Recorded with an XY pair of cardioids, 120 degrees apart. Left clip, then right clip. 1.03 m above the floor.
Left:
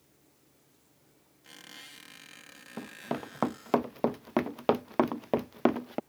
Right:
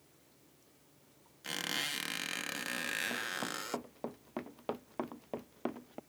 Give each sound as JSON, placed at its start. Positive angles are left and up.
{"t": 1.4, "sound": "a squeak", "azimuth_deg": -65}
{"t": 2.8, "sound": "running footsteps", "azimuth_deg": 65}